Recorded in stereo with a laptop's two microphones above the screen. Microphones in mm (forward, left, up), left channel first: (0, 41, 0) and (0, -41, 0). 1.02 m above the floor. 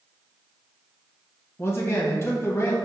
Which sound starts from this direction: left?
A man speaking, at 1.6 s.